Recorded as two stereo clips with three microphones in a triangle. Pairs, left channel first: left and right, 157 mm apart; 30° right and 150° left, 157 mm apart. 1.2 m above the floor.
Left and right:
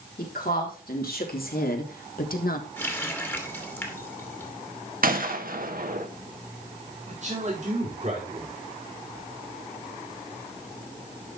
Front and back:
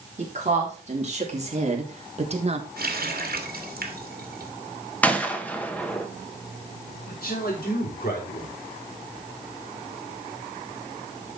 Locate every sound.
0.2 s a woman speaking: 105° left, 3.5 m
2.8 s a running tap: 165° left, 1.8 m
5.0 s a gunshot: 110° right, 1.3 m
7.1 s a man speaking: 50° right, 3.5 m